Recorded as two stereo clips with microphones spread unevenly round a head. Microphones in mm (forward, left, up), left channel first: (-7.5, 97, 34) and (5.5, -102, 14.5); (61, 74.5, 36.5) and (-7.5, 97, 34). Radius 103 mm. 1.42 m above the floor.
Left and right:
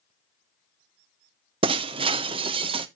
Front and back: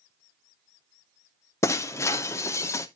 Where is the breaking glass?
30° right, 0.6 m.